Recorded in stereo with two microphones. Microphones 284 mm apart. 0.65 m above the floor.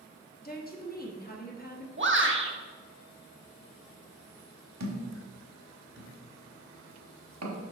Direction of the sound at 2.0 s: 45° right (ahead or behind).